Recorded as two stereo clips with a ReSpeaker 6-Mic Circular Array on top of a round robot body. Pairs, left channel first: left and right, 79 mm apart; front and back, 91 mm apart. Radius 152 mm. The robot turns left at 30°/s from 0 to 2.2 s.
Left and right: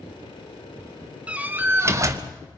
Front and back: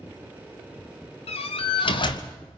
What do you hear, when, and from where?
1.3 s a door slam: 15° right, 0.7 m; by 2.3 s 40° right, 0.7 m